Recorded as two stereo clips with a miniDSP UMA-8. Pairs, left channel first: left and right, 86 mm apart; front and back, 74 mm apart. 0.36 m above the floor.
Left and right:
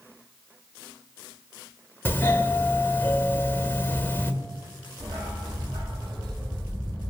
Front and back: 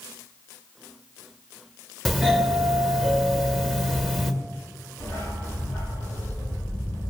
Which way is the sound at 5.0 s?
60° right.